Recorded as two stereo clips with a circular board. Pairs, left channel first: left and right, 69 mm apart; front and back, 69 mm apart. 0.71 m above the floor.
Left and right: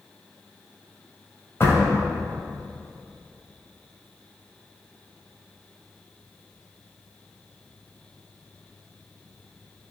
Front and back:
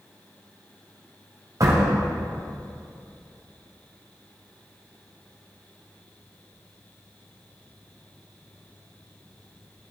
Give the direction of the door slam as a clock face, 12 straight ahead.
7 o'clock.